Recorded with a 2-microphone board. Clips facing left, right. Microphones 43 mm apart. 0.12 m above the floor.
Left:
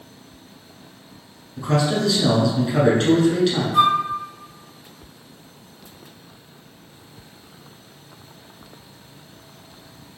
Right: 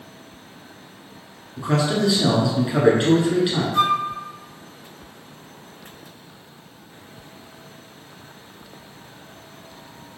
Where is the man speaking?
15° right (ahead or behind), 1.4 m.